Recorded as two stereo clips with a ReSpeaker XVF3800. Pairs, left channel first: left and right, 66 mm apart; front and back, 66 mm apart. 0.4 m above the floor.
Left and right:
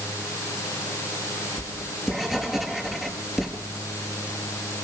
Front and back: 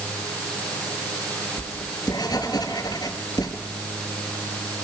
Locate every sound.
1.6 s writing: 5° right, 5.5 m